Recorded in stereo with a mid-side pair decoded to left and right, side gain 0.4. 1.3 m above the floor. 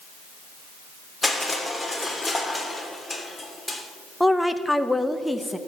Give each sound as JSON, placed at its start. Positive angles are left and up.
{"t": 1.2, "sound": "crushing", "azimuth_deg": 10, "distance_m": 3.0}
{"t": 4.2, "sound": "a woman speaking", "azimuth_deg": 5, "distance_m": 0.9}